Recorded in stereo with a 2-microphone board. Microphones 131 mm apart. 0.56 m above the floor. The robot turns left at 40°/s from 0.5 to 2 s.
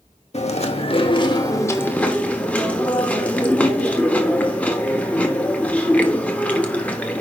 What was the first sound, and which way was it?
Chewing, 75° left.